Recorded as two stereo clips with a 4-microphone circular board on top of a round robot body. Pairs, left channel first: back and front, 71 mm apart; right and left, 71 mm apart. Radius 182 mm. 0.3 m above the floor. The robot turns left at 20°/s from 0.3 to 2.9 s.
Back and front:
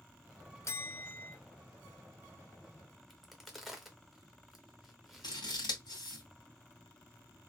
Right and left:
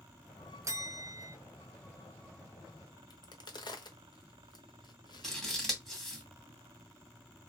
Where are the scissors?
175° right, 2 m.